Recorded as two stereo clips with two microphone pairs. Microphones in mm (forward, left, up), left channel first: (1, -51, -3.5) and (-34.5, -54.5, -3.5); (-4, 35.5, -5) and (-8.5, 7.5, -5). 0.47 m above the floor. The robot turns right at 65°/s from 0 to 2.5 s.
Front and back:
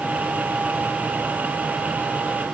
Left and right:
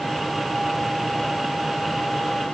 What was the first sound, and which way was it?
Only background noise.